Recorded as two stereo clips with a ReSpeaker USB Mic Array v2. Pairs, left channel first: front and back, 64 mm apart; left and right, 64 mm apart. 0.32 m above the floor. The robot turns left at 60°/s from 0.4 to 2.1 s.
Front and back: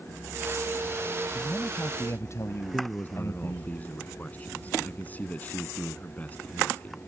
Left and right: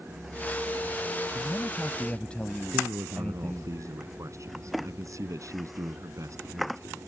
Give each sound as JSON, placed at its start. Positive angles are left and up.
{"t": 1.3, "sound": "a man speaking", "azimuth_deg": 65}
{"t": 2.7, "sound": "a man speaking", "azimuth_deg": -65}